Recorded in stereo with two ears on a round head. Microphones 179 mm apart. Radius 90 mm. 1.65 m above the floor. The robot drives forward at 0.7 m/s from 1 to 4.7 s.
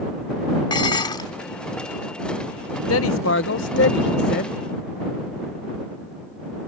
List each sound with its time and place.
0.7 s dishes clattering: 25° left (ahead or behind); by 1.3 s 20° left (ahead or behind)
2.9 s a man speaking: 80° left; by 4.6 s 50° left (ahead or behind)